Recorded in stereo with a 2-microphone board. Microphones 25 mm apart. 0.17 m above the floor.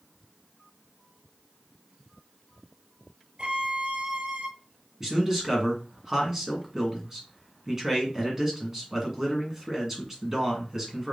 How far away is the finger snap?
I don't hear a finger snap.